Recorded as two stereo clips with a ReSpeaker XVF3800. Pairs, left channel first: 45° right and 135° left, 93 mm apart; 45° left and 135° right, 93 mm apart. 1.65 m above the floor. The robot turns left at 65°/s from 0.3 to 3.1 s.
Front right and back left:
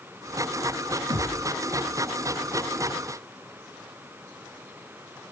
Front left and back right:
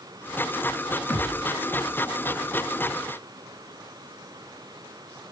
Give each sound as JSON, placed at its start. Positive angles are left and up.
{"t": 1.1, "sound": "a thud", "azimuth_deg": 130, "distance_m": 4.0}